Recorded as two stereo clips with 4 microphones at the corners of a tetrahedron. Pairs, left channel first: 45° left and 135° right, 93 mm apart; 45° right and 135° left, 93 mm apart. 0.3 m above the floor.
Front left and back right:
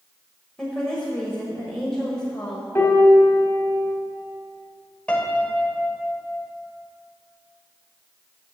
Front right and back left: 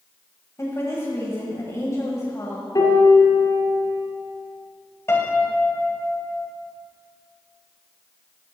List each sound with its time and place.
0.6 s a woman speaking: 30° right, 1.3 m
2.8 s a piano: 15° right, 1.7 m
5.1 s a piano: 20° right, 0.9 m